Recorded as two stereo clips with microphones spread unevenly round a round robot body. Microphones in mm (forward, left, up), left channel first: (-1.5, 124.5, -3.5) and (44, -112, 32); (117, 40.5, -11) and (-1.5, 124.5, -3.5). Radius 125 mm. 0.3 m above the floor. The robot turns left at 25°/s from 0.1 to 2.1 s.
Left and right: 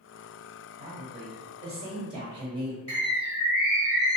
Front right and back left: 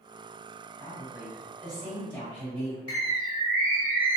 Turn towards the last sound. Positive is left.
turn(degrees=120)